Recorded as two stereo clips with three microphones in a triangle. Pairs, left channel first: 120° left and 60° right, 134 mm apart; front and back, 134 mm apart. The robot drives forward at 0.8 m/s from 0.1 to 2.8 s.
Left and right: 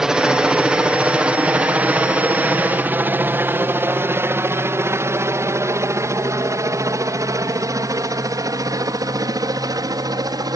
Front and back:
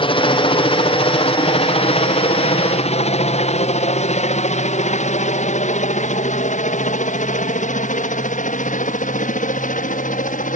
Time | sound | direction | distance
0.0 | a helicopter | 25° left | ?